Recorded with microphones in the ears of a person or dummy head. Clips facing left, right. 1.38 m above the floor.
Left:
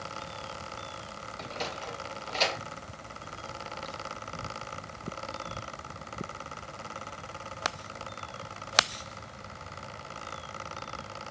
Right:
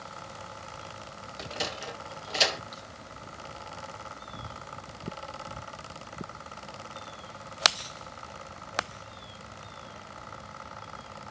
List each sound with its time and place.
1.4 s a sliding door: 10° right (ahead or behind), 1.6 m